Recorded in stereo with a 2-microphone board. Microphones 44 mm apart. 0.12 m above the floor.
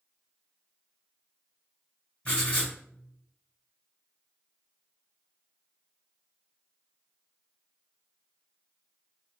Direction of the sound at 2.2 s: 30° left (ahead or behind).